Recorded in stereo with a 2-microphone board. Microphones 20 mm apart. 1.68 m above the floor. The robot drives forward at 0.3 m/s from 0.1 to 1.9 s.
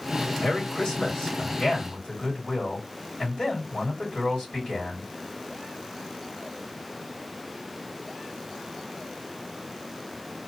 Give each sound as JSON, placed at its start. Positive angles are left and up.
{"t": 0.4, "sound": "a man speaking", "side_deg": 60, "distance_m": 1.9}